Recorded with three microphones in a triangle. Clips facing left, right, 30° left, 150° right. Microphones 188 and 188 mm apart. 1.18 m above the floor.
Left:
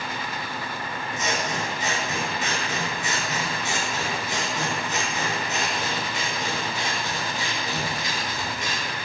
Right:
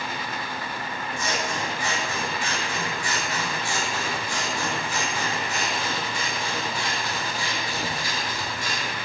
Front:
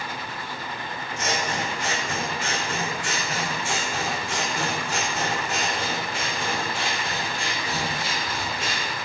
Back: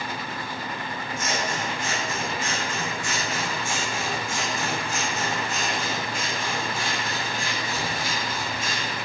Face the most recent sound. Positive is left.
turn(degrees=20)